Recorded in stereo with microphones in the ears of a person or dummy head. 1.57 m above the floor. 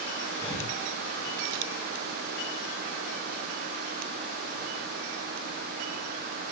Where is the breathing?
10° left (ahead or behind), 1.1 m.